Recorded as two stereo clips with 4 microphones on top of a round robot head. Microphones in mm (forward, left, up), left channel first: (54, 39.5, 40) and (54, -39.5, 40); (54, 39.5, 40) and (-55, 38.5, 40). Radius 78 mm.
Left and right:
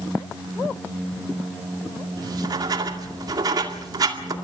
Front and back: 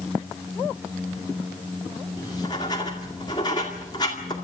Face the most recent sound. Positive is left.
turn(degrees=-60)